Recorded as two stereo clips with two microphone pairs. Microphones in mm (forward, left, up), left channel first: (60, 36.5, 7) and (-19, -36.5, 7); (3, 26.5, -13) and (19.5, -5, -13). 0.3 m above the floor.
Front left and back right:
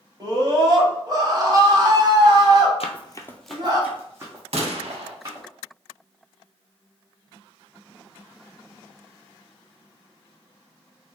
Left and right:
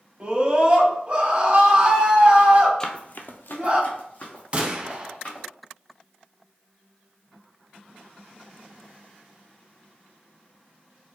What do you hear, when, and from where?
0.2 s a scream: 100° right, 1.4 m
2.8 s running footsteps: 50° left, 0.6 m; by 5.5 s 170° left, 2.5 m
4.5 s a gunshot: 115° right, 0.7 m